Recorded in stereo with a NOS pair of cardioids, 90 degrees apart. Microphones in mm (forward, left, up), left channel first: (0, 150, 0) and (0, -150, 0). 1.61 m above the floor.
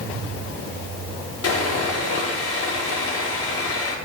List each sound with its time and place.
1.4 s sawing: 50° left, 6 m